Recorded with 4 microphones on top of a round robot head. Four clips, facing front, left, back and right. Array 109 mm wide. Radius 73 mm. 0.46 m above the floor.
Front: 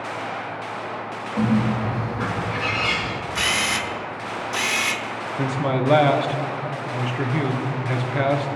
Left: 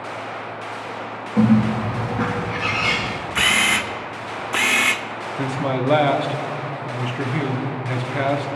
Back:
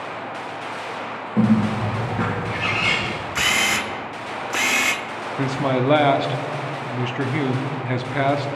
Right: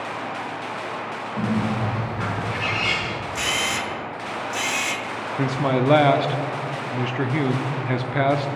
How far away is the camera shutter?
About 0.8 m.